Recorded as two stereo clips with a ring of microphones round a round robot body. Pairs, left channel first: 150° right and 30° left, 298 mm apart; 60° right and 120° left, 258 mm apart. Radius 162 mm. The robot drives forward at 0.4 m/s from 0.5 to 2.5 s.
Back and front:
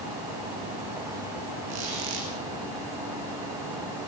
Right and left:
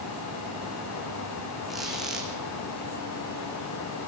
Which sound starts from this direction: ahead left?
A squeak, at 1.7 s.